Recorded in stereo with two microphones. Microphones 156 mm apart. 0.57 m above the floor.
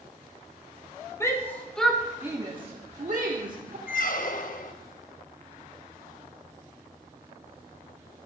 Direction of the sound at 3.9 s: 60° left (ahead or behind).